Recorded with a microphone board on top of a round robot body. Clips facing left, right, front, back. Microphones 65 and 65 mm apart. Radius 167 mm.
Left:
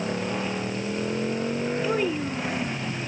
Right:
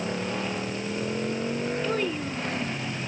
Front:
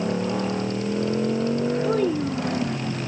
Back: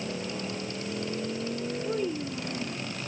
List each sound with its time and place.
0.0 s a motorcycle: 5° left
1.8 s a child speaking: 10° left